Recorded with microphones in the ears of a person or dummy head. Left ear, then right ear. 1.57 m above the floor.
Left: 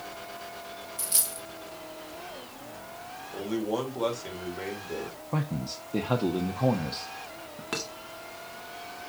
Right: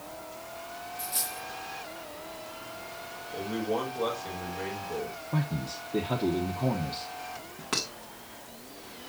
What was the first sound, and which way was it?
A dropped coin, 70° left (ahead or behind).